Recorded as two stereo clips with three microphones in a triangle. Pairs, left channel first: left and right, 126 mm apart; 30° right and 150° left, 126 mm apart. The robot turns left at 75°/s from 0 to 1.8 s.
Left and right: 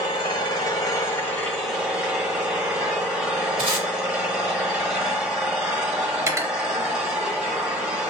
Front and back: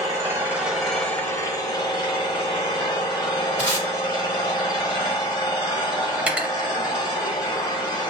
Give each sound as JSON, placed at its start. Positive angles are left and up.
{"t": 0.0, "sound": "an engine running", "azimuth_deg": 120, "distance_m": 1.0}
{"t": 3.6, "sound": "tape being pulled", "azimuth_deg": -110, "distance_m": 1.3}
{"t": 6.2, "sound": "cutlery clinking", "azimuth_deg": -135, "distance_m": 0.6}